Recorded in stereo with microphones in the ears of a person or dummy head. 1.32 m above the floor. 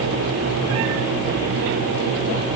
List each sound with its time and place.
Only background noise.